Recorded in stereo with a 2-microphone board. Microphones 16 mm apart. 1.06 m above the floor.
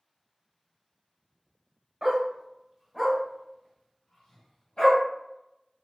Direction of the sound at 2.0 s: 40° right (ahead or behind).